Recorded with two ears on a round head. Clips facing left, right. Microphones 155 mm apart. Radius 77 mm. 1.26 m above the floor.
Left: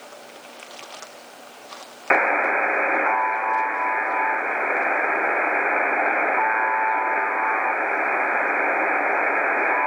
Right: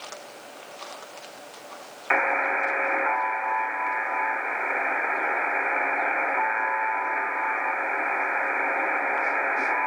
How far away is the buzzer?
About 1.3 m.